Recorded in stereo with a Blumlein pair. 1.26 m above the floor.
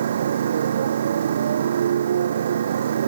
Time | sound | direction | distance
0.0 | a motorcycle | 65° right | ?